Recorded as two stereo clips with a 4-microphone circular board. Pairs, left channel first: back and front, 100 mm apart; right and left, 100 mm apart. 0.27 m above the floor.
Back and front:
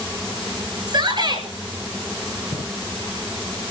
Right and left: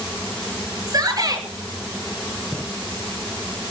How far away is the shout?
About 6 m.